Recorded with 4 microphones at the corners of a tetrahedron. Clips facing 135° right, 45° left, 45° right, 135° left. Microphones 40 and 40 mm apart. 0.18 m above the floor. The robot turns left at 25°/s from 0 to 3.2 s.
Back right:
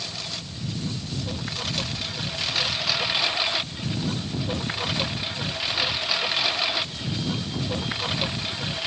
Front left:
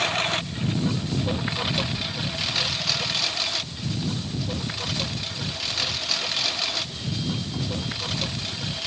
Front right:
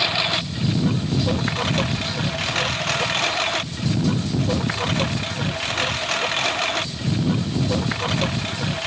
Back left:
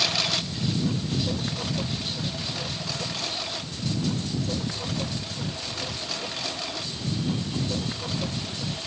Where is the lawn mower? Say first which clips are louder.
Front left 10 dB, front right 5 dB; 15° left; by 8.9 s 65° right.